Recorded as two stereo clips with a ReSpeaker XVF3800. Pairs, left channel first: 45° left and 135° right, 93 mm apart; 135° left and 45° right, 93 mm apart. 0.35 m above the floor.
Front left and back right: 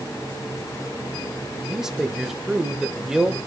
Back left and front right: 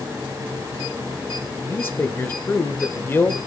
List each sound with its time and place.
1.7 s a man speaking: 150° left, 0.9 m